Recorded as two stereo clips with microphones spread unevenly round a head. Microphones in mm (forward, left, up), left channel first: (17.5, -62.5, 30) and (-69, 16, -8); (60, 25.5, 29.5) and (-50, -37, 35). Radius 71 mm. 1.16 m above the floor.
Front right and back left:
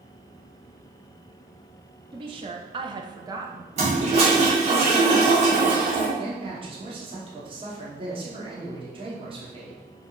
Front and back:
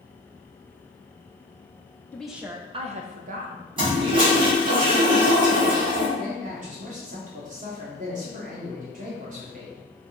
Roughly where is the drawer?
I don't hear a drawer.